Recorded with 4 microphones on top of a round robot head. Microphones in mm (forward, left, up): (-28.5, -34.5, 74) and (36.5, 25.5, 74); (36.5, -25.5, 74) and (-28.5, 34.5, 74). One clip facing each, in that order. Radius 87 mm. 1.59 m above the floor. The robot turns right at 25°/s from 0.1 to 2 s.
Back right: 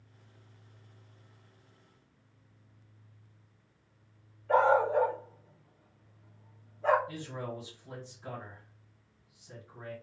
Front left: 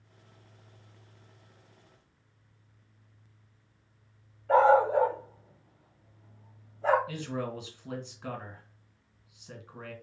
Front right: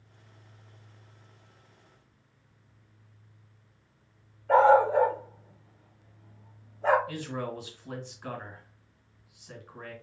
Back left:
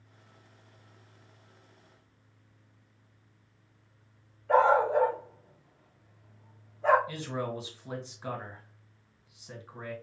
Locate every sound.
4.5 s a dog barking: straight ahead, 1.0 m
7.1 s a man speaking: 65° left, 1.6 m